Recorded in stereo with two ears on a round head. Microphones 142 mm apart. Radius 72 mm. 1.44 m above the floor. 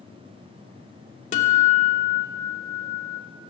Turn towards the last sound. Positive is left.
turn(degrees=50)  # may be behind; listen again after turning